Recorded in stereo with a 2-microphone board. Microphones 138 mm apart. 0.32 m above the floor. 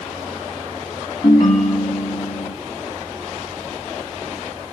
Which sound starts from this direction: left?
A ringtone, at 1.2 s.